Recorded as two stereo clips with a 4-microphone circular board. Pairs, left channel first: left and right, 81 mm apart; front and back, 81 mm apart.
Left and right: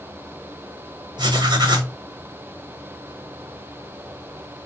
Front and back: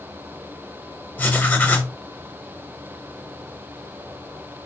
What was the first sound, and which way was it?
Writing, 70° right.